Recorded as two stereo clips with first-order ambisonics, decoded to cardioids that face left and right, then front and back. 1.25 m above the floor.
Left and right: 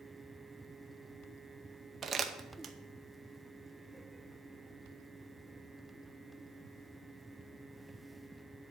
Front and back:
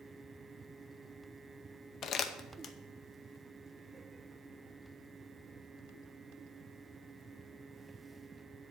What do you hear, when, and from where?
2.0 s crumpling: 35° right, 0.7 m